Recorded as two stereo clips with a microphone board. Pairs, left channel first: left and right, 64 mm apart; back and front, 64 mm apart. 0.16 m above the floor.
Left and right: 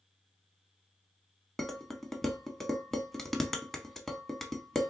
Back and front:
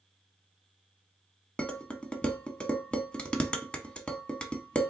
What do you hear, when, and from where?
1.6 s dishes clattering: 160° left, 0.7 m